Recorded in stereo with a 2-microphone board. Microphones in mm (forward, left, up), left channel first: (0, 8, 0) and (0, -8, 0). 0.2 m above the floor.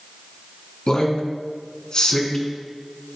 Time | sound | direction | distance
0.9 | a man speaking | 50° left (ahead or behind) | 1.7 m